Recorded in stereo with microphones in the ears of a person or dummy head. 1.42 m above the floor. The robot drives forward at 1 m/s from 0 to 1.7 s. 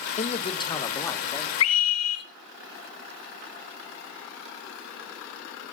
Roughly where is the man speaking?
Left.